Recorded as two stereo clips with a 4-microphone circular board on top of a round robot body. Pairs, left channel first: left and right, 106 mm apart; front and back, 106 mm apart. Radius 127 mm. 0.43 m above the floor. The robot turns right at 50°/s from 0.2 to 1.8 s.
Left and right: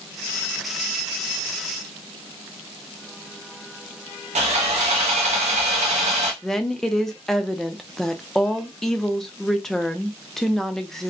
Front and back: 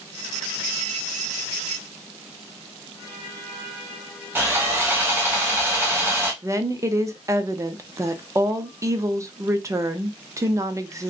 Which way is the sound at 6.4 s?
170° left.